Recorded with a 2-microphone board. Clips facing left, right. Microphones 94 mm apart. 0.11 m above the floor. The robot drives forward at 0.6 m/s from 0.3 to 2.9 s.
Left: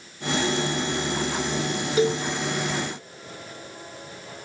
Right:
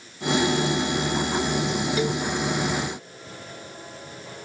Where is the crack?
I don't hear a crack.